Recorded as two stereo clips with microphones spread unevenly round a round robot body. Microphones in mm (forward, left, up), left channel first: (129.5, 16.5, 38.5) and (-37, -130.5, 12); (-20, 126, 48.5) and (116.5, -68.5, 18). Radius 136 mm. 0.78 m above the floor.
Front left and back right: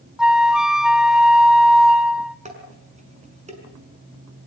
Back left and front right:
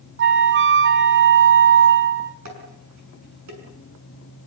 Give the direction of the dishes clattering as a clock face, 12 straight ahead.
3 o'clock.